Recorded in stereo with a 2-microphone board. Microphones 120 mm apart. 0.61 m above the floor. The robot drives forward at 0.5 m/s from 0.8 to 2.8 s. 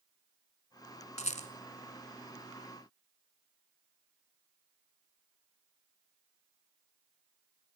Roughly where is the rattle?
Left.